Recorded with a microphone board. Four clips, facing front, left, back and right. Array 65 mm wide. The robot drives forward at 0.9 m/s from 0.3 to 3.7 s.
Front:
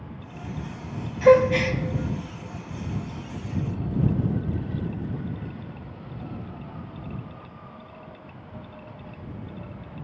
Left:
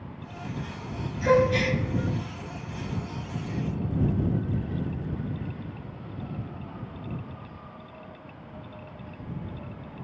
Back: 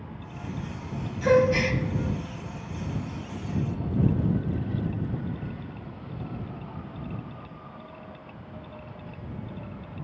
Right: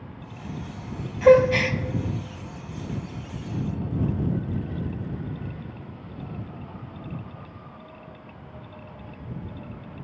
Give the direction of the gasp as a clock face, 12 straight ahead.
2 o'clock.